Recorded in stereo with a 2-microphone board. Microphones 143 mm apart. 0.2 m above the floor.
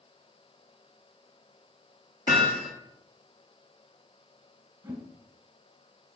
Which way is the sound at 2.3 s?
80° left.